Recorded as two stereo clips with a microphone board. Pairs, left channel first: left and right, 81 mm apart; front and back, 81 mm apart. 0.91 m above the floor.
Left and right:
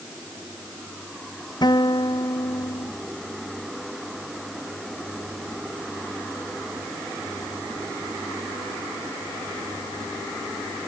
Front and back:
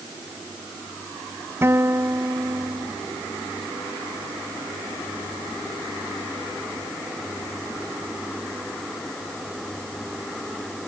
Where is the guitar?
120° left.